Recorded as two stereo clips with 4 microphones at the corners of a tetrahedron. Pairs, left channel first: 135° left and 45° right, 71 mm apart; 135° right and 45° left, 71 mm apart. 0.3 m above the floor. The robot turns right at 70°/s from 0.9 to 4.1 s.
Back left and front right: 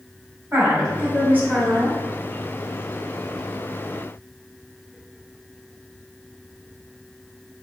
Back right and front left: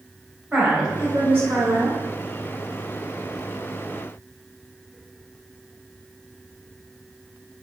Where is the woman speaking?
25° right, 1.3 m; by 2.0 s 50° left, 1.3 m.